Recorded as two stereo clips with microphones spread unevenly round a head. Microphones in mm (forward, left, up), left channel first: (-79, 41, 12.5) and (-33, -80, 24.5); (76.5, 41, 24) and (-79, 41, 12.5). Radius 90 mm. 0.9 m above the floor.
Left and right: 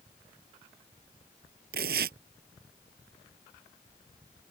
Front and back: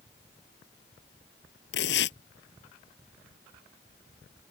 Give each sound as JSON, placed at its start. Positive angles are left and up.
{"t": 1.7, "sound": "tearing paper", "azimuth_deg": -35}